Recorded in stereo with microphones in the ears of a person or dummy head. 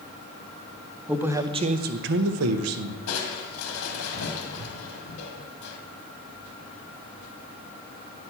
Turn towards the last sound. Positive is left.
turn(degrees=85)